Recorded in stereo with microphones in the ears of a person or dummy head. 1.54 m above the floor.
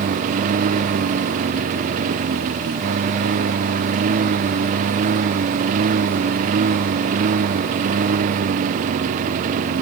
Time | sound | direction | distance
0.0 | a lawn mower | 40° right (ahead or behind) | ?